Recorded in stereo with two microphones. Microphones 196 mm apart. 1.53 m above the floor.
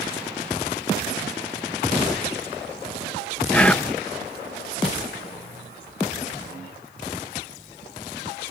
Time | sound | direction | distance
3.5 | whispering | 5° left (ahead or behind) | ?